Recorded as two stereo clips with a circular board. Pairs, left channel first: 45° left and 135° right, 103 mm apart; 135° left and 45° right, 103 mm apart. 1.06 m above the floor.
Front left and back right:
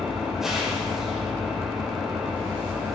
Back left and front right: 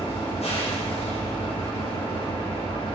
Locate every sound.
0.0 s an engine running: 140° left, 2.5 m